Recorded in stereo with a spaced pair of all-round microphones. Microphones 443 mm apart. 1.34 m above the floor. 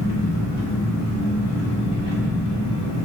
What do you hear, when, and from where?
0.0 s an engine running: 65° left (ahead or behind), 1.1 m